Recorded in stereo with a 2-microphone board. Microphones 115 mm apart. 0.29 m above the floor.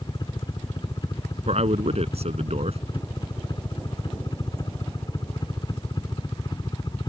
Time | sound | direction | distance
0.0 | a helicopter | 40° left (ahead or behind) | ?
1.5 | a man speaking | 65° right (ahead or behind) | ?